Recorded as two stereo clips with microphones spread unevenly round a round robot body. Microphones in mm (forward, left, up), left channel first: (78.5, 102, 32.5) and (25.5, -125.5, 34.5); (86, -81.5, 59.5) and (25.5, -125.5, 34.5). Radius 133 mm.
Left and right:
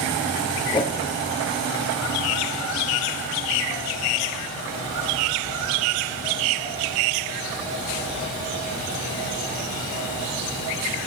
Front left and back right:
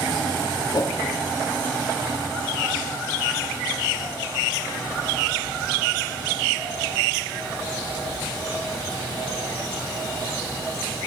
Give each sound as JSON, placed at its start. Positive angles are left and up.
{"t": 0.7, "sound": "a whoosh", "azimuth_deg": 5, "distance_m": 0.6}